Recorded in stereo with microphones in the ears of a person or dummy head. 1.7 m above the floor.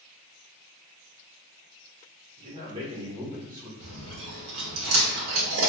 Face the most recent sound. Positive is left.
turn(degrees=-75)  # may be behind; listen again after turning